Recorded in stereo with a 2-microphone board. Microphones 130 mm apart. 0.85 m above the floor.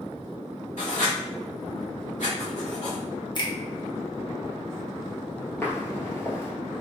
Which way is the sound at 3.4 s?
35° left (ahead or behind).